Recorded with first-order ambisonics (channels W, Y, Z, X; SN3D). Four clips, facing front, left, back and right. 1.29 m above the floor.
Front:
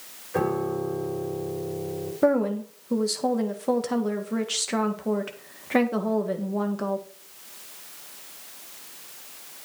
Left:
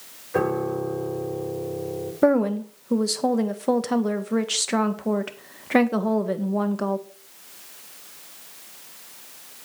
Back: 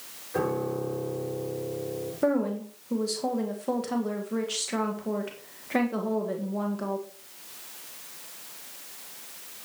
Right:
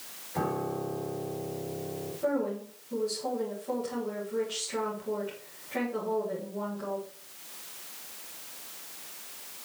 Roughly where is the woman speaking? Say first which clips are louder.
Left 11 dB, front 4 dB; left.